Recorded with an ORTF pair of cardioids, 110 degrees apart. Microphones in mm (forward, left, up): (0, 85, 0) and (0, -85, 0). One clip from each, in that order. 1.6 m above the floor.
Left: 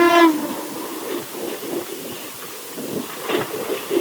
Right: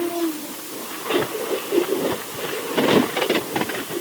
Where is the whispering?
I don't hear whispering.